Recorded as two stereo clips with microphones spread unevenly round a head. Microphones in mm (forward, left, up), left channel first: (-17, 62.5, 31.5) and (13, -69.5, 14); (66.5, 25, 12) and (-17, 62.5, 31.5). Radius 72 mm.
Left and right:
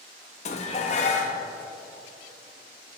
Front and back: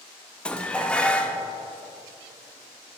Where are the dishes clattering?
60° left, 0.7 m.